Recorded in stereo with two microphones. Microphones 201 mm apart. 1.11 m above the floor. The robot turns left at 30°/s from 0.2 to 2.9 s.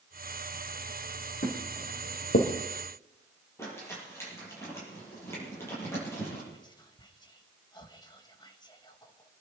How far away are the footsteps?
About 4 m.